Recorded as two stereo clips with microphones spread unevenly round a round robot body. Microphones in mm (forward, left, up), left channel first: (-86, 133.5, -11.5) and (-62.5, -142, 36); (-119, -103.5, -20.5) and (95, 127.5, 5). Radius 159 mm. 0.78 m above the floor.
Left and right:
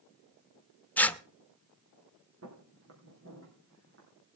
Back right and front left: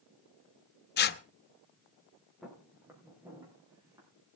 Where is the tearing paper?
175° left, 0.8 m.